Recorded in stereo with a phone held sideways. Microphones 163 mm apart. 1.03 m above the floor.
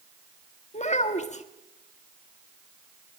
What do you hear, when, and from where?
0.7 s a child speaking: 45° left (ahead or behind), 1.3 m